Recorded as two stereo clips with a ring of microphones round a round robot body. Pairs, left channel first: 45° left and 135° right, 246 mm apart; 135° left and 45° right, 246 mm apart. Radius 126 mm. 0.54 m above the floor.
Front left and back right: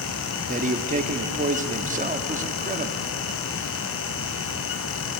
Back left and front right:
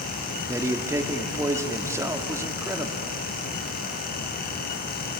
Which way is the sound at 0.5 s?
115° right.